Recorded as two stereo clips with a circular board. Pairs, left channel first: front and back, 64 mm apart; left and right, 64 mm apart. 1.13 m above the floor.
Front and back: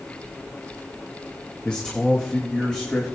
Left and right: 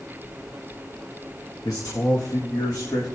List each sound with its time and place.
1.6 s a man speaking: 75° left, 1.6 m; by 3.0 s 80° left, 3 m